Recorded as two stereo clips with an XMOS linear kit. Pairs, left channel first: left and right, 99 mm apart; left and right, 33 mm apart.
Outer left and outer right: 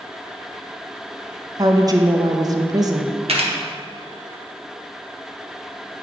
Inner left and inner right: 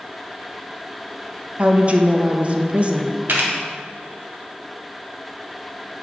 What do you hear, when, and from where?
1.6 s a woman speaking: 35° right (ahead or behind), 0.5 m
3.3 s a camera shutter: 65° right (ahead or behind), 1.2 m